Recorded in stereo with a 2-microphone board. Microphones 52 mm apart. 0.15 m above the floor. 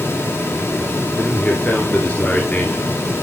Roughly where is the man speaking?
Left.